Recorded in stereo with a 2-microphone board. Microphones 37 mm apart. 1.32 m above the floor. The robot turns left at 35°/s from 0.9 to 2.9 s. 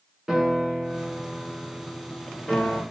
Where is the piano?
175° right, 5 m; by 2.8 s 120° left, 5 m.